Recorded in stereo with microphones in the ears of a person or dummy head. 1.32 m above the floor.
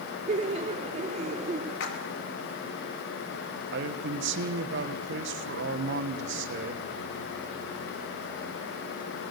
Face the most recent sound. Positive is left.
turn(degrees=-55)  # may be behind; listen again after turning